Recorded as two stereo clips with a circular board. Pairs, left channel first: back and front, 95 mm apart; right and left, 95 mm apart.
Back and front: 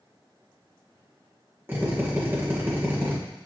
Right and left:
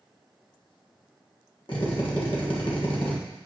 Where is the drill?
65° right, 1.3 m.